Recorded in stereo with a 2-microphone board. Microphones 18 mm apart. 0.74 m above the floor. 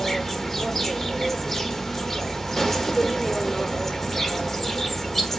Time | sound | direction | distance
0.0 | an insect | 20° left (ahead or behind) | 1.2 m